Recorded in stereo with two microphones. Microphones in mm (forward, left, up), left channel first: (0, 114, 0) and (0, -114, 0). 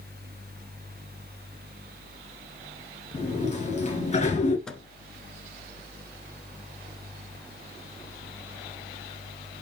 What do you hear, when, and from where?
3.1 s a sliding door: 30° left (ahead or behind), 2 m
4.7 s a microwave: centre (ahead or behind), 0.9 m